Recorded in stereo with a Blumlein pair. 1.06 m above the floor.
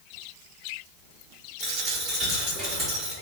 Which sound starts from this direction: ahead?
A dropped coin, at 1.6 s.